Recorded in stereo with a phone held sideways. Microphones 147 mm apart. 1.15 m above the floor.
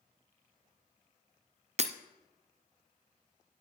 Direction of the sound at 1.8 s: 50° right (ahead or behind).